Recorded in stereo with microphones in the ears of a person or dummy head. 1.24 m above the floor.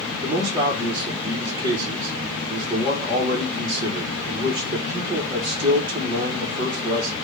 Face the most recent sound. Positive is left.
turn(degrees=-20)  # may be behind; listen again after turning